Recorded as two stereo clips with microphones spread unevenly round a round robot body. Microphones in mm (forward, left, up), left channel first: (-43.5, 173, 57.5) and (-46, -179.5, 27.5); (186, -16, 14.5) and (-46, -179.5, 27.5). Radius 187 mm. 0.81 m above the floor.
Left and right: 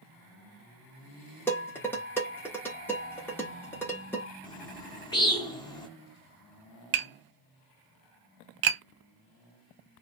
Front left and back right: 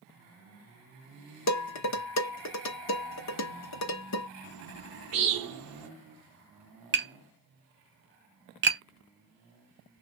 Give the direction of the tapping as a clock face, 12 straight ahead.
3 o'clock.